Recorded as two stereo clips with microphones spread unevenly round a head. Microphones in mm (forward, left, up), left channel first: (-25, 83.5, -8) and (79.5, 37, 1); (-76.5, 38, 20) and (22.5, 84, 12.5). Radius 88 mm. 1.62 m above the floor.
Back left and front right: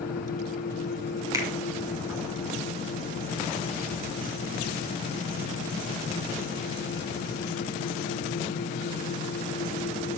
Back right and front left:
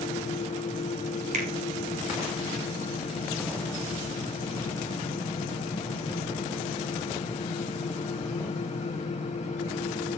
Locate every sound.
0.0 s a fan: 175° right, 2 m
1.3 s a finger snap: 35° left, 4 m